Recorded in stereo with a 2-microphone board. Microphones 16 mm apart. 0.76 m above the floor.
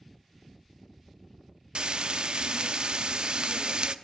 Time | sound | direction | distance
1.8 | frying | 70° right (ahead or behind) | 0.6 m